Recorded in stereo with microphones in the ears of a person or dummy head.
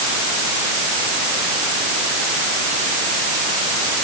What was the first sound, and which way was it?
Only background noise.